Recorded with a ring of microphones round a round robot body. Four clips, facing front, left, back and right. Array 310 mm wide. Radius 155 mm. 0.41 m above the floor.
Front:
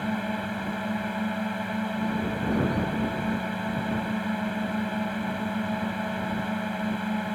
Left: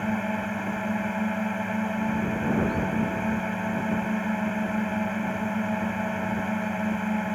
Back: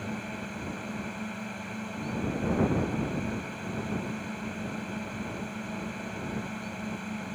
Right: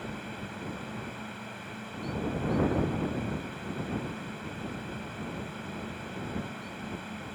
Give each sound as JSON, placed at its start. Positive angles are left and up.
{"t": 0.0, "sound": "a drone", "azimuth_deg": 60}